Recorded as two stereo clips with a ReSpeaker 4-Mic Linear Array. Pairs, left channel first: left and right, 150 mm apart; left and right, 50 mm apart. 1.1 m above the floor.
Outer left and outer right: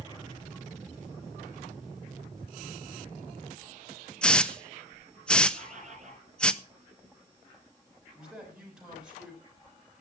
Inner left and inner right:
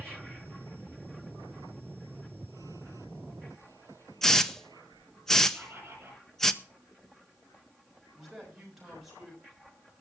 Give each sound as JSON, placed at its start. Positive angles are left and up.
{"t": 4.2, "sound": "a hiss", "side_deg": 5, "distance_m": 0.7}
{"t": 5.5, "sound": "a bird", "side_deg": -50, "distance_m": 8.5}
{"t": 8.2, "sound": "a man speaking", "side_deg": -5, "distance_m": 7.0}